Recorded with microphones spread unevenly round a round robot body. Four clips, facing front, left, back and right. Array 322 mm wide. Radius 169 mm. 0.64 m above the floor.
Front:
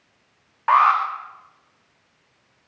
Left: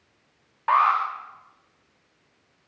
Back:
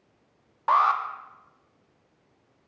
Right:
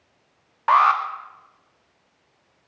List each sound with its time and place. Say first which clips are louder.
0.7 s an alarm: right 3 dB, front 5 dB; 165° right, 2 m